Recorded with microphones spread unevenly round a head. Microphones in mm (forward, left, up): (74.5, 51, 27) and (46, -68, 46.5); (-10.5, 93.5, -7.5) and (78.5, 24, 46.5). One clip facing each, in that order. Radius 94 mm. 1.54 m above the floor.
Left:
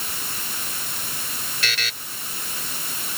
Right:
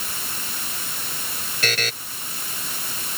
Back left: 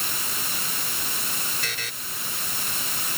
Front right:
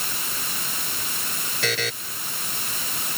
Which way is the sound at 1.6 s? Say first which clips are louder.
Right 6 dB, front right 9 dB; 60° right.